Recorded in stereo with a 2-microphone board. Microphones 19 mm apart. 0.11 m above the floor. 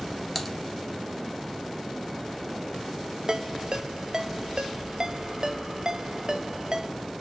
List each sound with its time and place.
0.3 s typing on a keyboard: 5° left (ahead or behind), 1.3 m
3.3 s a ringtone: 45° right (ahead or behind), 0.8 m